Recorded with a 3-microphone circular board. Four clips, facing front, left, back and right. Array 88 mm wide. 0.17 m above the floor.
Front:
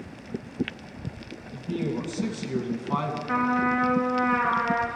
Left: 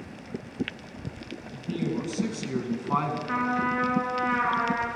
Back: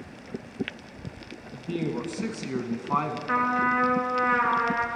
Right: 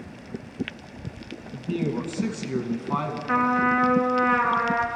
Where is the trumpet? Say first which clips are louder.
Right 7 dB, even; 145° right, 2.5 m.